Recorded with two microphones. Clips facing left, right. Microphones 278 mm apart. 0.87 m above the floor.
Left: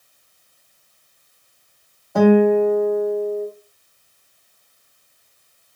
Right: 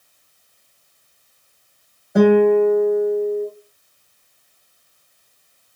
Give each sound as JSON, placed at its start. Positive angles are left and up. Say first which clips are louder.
{"t": 2.1, "sound": "a guitar", "louder": "right 1 dB", "side_deg": -20, "distance_m": 1.5}